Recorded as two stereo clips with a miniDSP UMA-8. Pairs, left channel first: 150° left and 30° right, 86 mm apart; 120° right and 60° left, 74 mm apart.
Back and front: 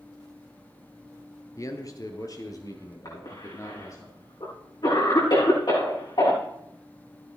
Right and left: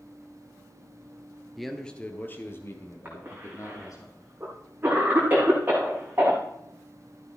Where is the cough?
120° left, 5.5 m.